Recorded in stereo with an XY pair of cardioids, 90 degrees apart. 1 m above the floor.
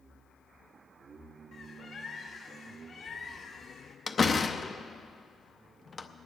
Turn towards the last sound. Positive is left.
turn(degrees=35)